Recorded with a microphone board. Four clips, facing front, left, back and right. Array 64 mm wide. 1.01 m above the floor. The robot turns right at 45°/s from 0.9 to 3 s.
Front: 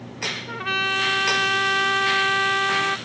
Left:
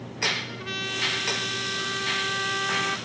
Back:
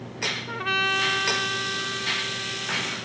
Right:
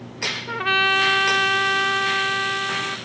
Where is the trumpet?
85° right; by 3.0 s 5° left.